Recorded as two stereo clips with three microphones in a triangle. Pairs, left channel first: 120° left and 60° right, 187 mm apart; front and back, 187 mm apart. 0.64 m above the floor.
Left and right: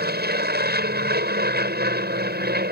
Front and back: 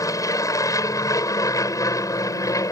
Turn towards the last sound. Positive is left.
turn(degrees=-70)